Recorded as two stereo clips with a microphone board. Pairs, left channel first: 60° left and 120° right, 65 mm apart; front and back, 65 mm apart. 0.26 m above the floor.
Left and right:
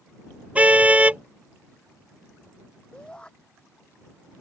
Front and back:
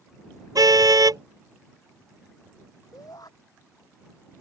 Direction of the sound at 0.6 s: 170° left.